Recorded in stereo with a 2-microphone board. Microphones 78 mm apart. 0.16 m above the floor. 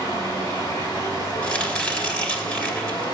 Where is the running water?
80° left, 6.5 m.